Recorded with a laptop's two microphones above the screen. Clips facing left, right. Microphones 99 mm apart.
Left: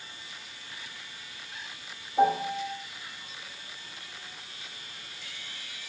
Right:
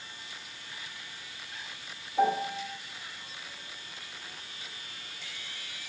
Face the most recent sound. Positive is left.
turn(degrees=15)  # may be behind; listen again after turning